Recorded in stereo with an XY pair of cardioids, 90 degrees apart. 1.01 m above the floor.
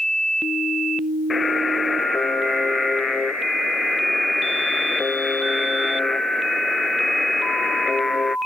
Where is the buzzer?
35° left.